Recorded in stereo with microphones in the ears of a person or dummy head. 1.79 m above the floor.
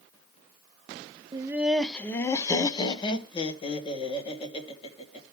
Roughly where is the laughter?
Right.